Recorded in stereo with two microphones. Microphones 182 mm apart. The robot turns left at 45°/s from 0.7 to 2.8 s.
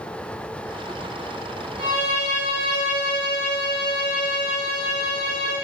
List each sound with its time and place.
1.8 s a violin: 160° left, 1.0 m; by 5.6 s 115° left, 1.0 m